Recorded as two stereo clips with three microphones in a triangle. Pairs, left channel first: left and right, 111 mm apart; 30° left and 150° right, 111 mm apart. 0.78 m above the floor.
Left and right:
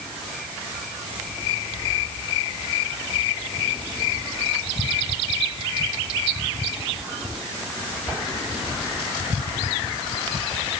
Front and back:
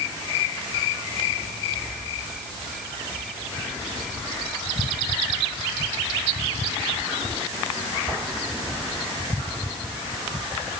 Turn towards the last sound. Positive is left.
No sound to turn to.